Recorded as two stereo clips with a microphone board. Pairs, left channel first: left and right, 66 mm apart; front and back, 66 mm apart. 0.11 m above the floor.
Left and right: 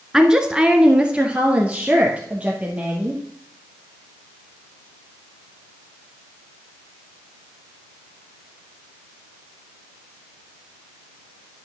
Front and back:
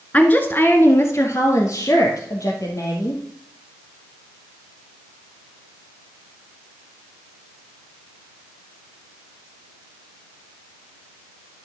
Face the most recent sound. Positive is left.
turn(degrees=-20)